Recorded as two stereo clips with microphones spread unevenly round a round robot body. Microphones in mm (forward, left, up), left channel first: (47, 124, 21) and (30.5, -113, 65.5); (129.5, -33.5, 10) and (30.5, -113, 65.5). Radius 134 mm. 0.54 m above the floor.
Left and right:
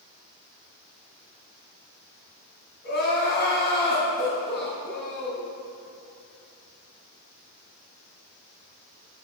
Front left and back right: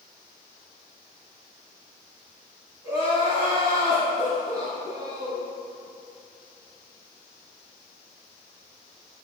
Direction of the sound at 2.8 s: 140° left.